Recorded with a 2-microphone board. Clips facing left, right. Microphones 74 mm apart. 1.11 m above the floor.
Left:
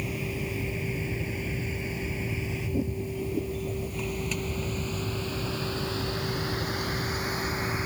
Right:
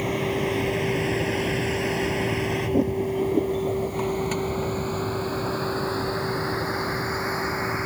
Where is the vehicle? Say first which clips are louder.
Right 9 dB; 65° right (ahead or behind); by 7.9 s 25° right (ahead or behind).